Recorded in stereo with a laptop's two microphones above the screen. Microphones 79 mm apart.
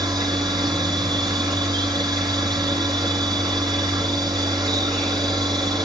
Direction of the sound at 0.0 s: 60° right (ahead or behind).